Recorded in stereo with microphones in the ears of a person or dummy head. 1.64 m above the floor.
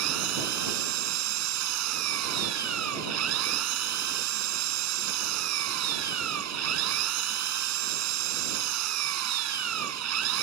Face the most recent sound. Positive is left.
turn(degrees=-75)  # may be behind; listen again after turning